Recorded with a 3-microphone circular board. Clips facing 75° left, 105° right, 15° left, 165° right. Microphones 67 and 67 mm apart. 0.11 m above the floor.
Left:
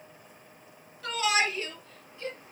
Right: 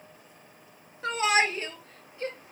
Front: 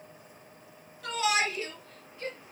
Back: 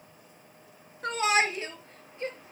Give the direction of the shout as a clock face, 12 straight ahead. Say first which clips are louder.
Right 3 dB, back 3 dB; 5 o'clock.